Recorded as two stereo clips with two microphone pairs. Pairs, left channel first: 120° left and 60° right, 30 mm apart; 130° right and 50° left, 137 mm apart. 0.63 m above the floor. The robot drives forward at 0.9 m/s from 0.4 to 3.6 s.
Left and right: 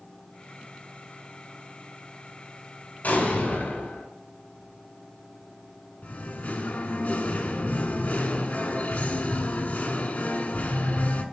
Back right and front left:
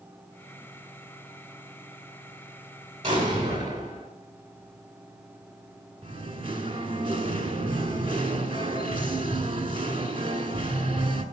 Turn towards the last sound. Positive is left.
turn(degrees=95)